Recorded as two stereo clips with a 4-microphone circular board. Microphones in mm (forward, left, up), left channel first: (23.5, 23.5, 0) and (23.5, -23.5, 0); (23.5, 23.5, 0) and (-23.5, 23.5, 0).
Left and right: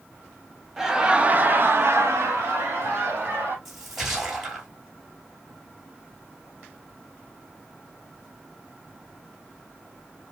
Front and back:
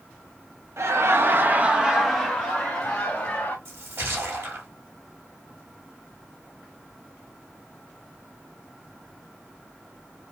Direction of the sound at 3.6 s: Straight behind.